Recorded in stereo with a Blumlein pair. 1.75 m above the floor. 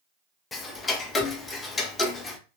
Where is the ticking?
15° left, 0.5 m.